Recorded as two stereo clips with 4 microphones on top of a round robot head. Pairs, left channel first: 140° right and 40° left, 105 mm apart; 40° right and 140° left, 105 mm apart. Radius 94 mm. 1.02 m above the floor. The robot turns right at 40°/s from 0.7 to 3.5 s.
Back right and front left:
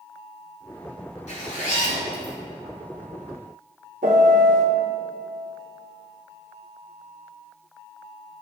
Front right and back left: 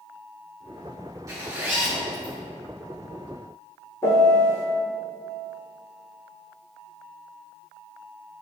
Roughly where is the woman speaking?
No woman speaking in this recording.